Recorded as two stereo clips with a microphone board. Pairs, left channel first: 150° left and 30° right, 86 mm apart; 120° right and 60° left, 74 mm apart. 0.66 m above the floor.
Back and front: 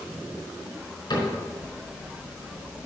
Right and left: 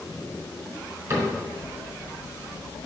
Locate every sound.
1.1 s a cupboard door: 110° left, 4.5 m